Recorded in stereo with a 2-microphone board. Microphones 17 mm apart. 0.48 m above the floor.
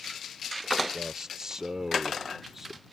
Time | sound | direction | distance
0.9 | a man speaking | 40° right (ahead or behind) | ?